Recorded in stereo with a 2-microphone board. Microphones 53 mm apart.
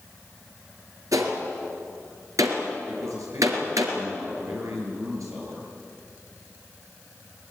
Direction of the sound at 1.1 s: 85° right.